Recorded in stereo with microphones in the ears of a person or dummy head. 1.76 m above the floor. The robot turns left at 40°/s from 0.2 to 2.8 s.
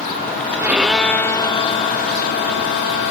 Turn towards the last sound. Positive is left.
turn(degrees=95)